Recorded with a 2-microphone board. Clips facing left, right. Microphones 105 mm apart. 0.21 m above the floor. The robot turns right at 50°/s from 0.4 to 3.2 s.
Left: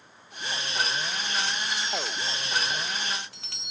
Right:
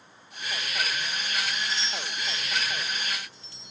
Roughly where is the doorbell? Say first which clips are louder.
Left 1 dB; ahead.